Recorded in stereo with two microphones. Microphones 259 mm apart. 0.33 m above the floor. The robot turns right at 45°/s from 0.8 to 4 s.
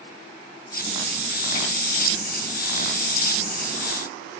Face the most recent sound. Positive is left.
No sound to turn to.